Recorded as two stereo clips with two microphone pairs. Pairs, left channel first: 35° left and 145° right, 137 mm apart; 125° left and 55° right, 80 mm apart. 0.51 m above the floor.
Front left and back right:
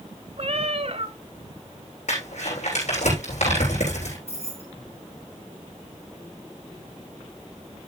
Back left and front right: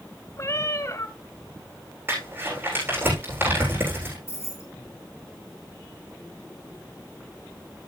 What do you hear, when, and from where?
0.4 s a cat meowing: 175° left, 1.0 m
2.1 s crumpling: 10° left, 8.5 m
4.3 s keys jangling: 70° left, 7.5 m